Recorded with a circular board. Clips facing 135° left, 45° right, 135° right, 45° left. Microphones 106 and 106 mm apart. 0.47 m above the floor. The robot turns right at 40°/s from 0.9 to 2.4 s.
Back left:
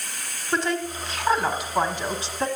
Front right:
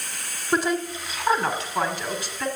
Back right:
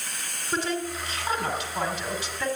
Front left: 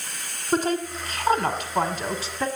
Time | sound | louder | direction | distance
0.5 | a woman speaking | front right 2 dB, front left 5 dB | 30° left | 1.6 m